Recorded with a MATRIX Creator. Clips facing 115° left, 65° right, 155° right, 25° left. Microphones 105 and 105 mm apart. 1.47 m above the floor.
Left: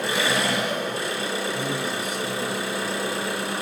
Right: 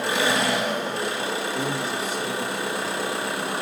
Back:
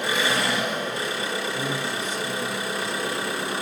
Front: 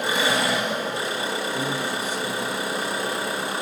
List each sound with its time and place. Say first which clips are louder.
0.0 s an engine running: right 1 dB, front 2 dB; 35° right, 1.7 m
1.5 s a man speaking: right 1 dB, front 2 dB; 55° right, 1.5 m